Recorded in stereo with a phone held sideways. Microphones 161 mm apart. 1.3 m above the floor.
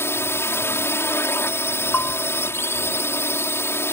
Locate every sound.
0.0 s a drone: 15° left (ahead or behind)
1.9 s a bell: 15° left (ahead or behind)